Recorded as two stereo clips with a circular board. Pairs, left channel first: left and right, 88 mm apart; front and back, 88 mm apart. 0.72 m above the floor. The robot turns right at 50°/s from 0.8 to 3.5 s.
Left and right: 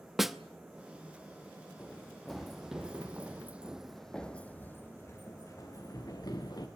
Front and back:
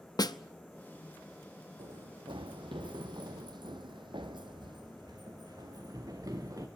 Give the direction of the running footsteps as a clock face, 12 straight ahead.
7 o'clock.